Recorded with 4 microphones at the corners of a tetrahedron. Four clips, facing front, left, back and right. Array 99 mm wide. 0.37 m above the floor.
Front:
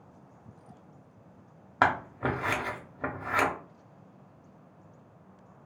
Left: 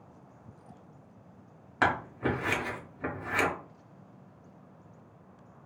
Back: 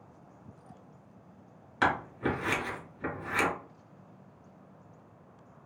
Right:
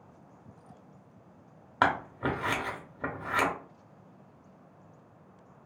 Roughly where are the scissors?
Ahead right.